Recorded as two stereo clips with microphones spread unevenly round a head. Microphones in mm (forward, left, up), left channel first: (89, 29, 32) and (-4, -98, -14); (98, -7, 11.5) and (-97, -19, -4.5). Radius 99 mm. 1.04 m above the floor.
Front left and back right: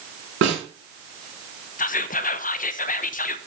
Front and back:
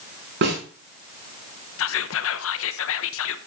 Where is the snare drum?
140° right, 6 m.